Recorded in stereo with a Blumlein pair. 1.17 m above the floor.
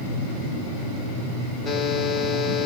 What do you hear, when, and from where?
1.6 s a buzzer: 15° left, 1.3 m